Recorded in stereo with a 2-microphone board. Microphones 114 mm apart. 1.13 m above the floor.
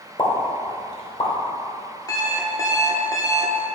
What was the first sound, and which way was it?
A pop, 45° left (ahead or behind).